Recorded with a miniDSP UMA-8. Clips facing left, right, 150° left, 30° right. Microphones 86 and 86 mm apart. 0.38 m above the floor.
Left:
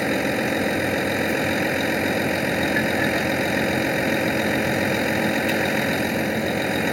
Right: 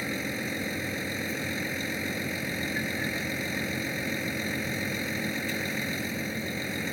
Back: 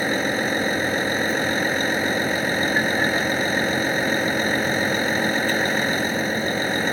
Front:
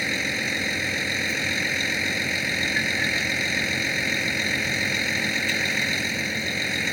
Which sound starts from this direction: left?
A vehicle, at 0.0 s.